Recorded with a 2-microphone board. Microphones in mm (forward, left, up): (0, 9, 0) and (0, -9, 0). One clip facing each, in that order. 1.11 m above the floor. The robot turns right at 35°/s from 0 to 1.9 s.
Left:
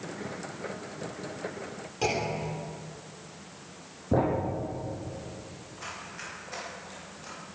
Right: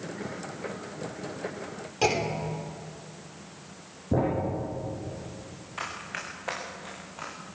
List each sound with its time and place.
2.0 s a clunk: 20° right (ahead or behind), 3 m
4.1 s a thud: 15° left (ahead or behind), 6 m
5.8 s running footsteps: 55° right (ahead or behind), 7 m; by 7.4 s 75° right (ahead or behind), 6.5 m